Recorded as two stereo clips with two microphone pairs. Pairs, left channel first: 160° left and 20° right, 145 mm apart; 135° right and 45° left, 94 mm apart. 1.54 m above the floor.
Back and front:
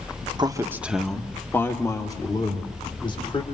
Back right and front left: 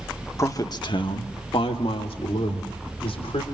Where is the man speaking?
75° right, 1.4 m; by 3.4 s 145° right, 4.5 m.